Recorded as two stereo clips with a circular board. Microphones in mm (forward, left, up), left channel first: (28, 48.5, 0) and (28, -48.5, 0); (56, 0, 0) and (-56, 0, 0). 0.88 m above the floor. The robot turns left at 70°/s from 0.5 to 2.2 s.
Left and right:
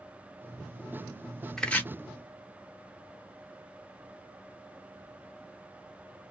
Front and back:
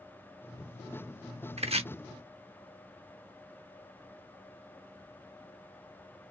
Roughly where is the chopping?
Behind.